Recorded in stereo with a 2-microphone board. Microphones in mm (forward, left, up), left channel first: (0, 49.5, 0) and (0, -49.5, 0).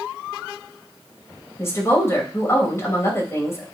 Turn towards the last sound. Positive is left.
turn(degrees=25)  # may be behind; listen again after turning